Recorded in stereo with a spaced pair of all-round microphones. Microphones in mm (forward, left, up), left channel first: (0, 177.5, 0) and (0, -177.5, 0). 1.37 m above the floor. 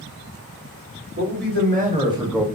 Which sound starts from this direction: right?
A man speaking, at 1.2 s.